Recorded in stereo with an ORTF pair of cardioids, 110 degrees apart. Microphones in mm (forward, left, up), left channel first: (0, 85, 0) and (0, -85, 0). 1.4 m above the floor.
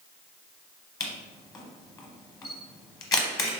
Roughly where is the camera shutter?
Ahead.